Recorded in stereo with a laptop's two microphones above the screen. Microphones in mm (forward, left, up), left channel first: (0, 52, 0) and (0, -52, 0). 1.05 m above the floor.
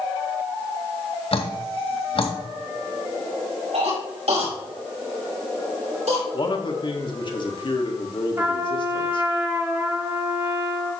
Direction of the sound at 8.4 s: 25° right (ahead or behind).